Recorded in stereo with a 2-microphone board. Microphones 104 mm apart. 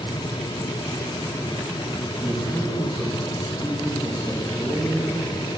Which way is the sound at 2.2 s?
5° left (ahead or behind).